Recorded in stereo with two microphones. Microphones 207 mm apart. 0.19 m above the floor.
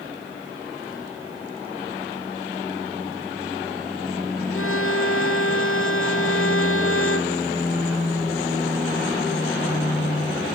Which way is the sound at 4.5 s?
70° left (ahead or behind).